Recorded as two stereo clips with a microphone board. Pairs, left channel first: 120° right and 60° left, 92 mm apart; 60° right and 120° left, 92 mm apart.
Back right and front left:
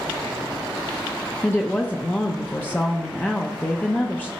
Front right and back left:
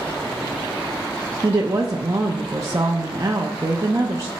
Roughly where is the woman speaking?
Behind.